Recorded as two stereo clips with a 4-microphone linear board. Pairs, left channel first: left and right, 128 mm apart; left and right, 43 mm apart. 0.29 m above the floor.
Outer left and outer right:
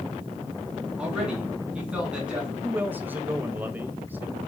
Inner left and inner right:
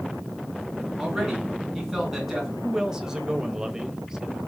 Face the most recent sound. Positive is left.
turn(degrees=-15)  # may be behind; listen again after turning